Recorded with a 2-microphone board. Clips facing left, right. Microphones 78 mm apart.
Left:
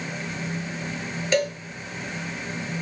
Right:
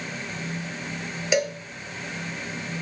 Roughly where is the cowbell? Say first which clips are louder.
Left 1 dB; centre.